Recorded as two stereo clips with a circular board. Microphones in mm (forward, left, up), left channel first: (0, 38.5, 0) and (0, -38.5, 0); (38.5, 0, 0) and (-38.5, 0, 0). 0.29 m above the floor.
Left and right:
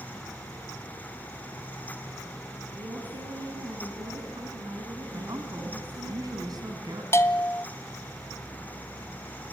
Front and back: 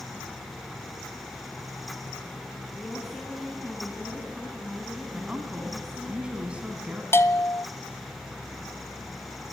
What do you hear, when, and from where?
2.8 s a woman speaking: 90° right, 3.5 m
5.1 s a woman speaking: 105° right, 3 m
7.1 s a bell: 45° left, 0.8 m